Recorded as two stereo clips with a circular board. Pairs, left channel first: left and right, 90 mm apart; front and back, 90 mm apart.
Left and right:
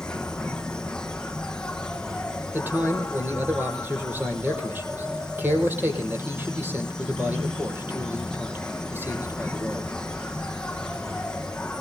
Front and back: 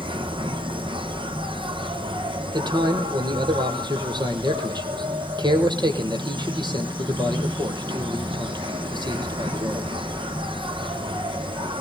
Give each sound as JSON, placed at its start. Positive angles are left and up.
{"t": 0.0, "sound": "an insect", "azimuth_deg": 170, "distance_m": 1.2}
{"t": 2.5, "sound": "a man speaking", "azimuth_deg": -155, "distance_m": 4.5}